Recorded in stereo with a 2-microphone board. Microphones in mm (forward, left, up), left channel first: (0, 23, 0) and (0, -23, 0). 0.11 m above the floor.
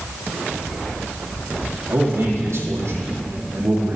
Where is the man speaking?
70° right (ahead or behind), 4 m.